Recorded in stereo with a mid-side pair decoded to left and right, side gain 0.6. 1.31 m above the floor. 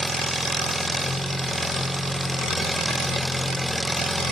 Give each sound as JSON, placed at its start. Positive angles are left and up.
{"t": 0.0, "sound": "an engine running", "azimuth_deg": 0, "distance_m": 1.2}